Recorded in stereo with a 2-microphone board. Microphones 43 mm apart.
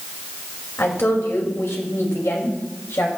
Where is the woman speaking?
60° left (ahead or behind), 2.5 m; by 3.1 s 85° left, 2.5 m.